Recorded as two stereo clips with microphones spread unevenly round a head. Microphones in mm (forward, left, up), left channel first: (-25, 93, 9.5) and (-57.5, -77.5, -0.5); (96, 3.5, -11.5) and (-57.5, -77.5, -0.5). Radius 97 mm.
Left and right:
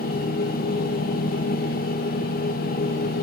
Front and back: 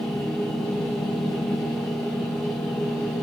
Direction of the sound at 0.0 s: 115° left.